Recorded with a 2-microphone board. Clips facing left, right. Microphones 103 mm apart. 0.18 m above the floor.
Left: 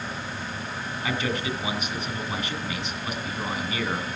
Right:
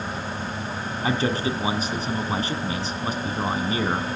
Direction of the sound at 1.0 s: 35° right (ahead or behind).